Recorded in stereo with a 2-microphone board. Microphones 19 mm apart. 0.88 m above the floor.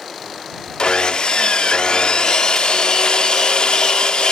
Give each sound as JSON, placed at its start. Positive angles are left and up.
{"t": 0.8, "sound": "sawing", "side_deg": 65}